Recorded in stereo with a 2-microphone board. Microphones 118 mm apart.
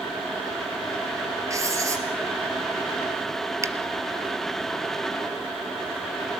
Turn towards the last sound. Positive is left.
turn(degrees=-30)  # may be behind; listen again after turning